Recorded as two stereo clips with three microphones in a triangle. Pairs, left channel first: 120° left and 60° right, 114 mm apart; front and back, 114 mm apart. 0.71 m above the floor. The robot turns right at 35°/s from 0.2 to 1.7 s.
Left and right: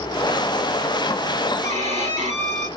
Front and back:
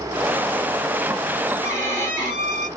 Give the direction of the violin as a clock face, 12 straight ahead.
2 o'clock.